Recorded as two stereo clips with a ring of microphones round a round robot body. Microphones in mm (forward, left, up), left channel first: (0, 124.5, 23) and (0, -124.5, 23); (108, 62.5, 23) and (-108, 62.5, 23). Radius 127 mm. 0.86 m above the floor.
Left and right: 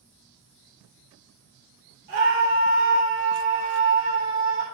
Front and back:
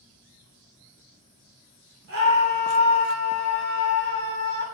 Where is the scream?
140° right, 3.5 m.